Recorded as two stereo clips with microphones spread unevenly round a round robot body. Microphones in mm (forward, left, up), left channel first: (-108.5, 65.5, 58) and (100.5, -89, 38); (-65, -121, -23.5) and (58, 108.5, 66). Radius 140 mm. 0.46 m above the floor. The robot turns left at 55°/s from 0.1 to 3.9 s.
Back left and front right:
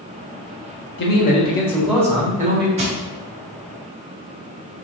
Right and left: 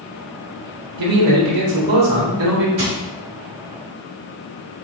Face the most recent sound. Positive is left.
turn(degrees=-40)